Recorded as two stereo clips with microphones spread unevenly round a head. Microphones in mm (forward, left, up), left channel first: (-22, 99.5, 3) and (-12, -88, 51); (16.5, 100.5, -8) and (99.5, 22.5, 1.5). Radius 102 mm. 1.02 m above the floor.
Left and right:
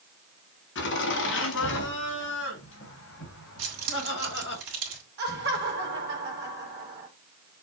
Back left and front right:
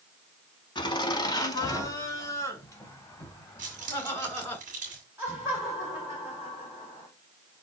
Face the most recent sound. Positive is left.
turn(degrees=-125)